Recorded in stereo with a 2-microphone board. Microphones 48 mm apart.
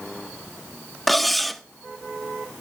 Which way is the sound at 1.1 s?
5° left (ahead or behind).